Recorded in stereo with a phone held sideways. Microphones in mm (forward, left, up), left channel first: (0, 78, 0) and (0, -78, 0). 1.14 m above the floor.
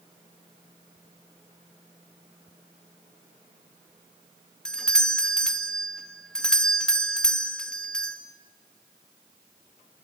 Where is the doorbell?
5° left (ahead or behind), 2 m.